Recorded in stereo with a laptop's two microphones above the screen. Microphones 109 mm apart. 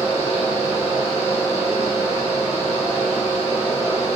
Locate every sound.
0.0 s a fan: 60° left (ahead or behind), 0.9 m